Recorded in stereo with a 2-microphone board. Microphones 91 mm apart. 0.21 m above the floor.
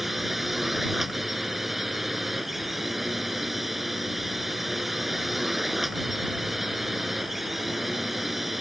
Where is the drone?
Centre (ahead or behind).